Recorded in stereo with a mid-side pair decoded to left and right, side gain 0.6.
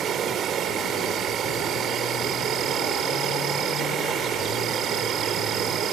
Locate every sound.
0.0 s an insect: 50° right